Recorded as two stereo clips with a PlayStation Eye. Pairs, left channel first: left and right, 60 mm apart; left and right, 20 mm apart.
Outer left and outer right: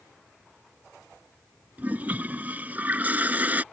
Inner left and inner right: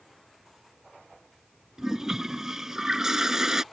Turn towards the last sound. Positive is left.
turn(degrees=-30)  # may be behind; listen again after turning